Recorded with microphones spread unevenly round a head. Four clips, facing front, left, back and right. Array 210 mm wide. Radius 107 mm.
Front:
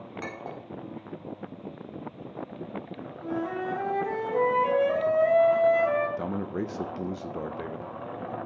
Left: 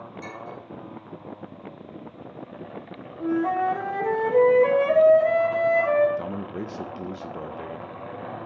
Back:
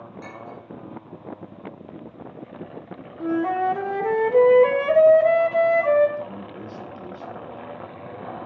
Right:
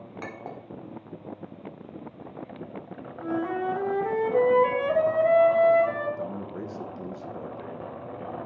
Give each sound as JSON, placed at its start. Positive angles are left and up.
{"t": 0.2, "sound": "a clink", "azimuth_deg": -45, "distance_m": 2.0}
{"t": 3.2, "sound": "a flute", "azimuth_deg": 160, "distance_m": 1.4}
{"t": 6.2, "sound": "a man speaking", "azimuth_deg": 25, "distance_m": 0.5}